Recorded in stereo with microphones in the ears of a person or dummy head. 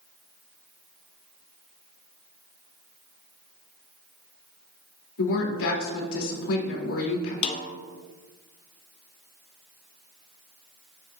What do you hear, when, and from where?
5.2 s a woman speaking: 75° left (ahead or behind), 2 m
7.4 s a snare drum: 35° left (ahead or behind), 0.7 m